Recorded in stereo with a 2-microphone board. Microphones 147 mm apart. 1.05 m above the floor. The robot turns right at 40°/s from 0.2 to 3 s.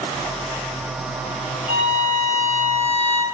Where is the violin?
100° right, 1.1 m; by 3.2 s 45° right, 1.1 m.